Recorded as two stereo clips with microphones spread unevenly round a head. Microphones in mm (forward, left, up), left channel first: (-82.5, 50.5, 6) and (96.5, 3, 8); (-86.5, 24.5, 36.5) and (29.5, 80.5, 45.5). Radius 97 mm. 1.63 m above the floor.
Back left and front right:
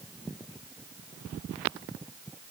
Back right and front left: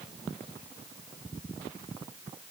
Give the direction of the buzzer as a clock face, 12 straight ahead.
I don't hear a buzzer.